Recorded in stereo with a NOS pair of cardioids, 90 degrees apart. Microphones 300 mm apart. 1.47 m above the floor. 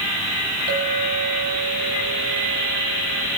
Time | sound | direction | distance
0.7 | a clink | 45° right | 7.5 m